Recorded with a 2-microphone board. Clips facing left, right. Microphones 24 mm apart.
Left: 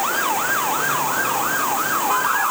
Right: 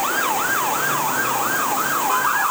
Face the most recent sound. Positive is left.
No sound to turn to.